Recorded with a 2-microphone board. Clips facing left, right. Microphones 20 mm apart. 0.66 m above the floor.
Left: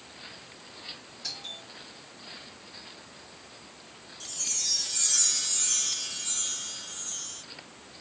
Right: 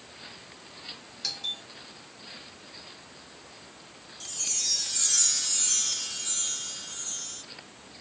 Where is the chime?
10° right (ahead or behind), 1.3 m.